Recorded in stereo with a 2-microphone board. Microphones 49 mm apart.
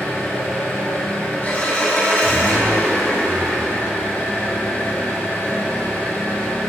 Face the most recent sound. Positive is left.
turn(degrees=35)  # may be behind; listen again after turning